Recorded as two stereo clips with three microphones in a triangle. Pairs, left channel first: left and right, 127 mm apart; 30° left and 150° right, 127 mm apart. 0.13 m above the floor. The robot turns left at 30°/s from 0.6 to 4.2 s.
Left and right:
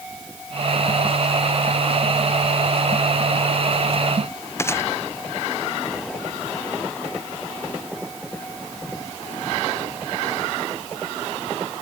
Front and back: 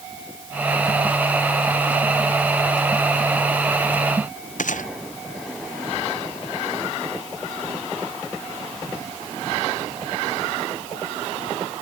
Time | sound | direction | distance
4.6 | a gunshot | 20° left | ?